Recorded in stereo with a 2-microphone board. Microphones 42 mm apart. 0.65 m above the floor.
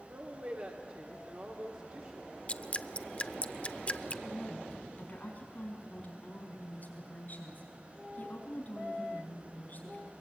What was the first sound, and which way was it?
A woman speaking, 45° right (ahead or behind).